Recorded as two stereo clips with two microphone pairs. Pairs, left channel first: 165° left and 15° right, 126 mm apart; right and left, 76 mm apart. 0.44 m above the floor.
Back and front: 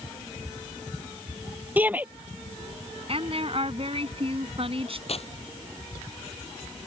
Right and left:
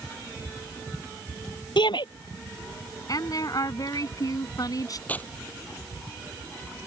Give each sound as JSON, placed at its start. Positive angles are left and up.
{"t": 1.8, "sound": "a shout", "azimuth_deg": -90}
{"t": 3.1, "sound": "a woman speaking", "azimuth_deg": -55}
{"t": 5.1, "sound": "tearing paper", "azimuth_deg": -155}